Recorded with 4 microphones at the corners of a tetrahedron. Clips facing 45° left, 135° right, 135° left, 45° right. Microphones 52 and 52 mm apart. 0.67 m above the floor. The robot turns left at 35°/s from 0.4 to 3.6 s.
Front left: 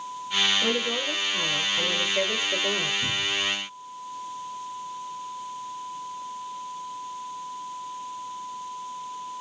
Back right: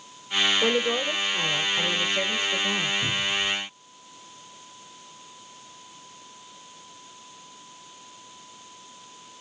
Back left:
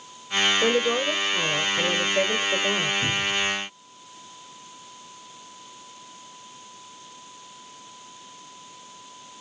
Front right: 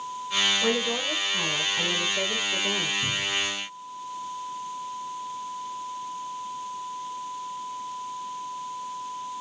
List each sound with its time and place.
0.6 s a woman speaking: 175° left, 2 m; by 2.9 s 95° left, 2 m
3.0 s a cupboard door: 155° left, 1.8 m; by 3.5 s 135° left, 1.8 m